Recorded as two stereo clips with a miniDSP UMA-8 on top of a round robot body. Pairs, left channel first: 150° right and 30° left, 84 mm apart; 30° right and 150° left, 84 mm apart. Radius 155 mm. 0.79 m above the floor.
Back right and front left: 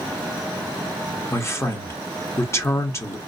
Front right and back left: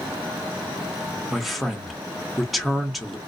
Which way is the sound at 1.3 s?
120° right.